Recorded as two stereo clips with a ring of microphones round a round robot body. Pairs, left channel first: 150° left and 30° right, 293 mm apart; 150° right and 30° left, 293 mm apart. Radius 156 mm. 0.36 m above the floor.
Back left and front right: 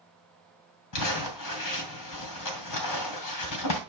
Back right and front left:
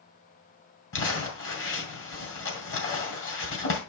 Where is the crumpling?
165° left, 2.5 m.